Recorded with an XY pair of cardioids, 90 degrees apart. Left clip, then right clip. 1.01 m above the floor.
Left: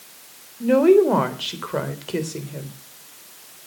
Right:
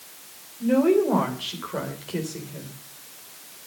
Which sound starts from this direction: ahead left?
A woman speaking, at 0.6 s.